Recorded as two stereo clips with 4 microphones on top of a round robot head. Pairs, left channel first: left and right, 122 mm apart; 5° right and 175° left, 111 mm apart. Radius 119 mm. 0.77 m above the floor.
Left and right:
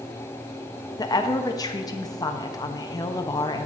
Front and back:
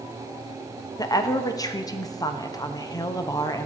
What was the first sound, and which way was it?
A woman speaking, 40° left.